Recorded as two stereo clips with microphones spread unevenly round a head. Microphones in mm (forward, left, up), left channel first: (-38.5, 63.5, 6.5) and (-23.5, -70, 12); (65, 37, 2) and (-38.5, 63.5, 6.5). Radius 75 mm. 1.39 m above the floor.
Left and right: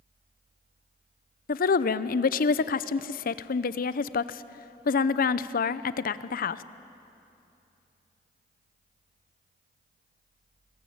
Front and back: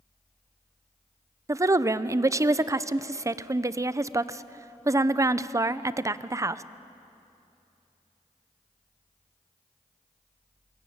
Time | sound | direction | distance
1.5 | a woman speaking | 105° left | 0.7 m